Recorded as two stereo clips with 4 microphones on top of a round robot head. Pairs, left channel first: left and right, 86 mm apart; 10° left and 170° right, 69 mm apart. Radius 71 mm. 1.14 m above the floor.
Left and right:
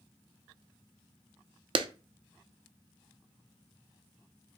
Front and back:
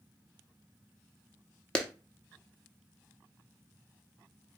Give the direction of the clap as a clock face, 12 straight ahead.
2 o'clock.